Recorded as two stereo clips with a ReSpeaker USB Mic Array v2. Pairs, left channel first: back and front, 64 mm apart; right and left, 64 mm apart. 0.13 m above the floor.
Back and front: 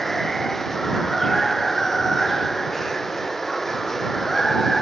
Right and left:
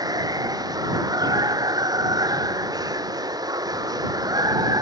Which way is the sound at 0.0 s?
90° left.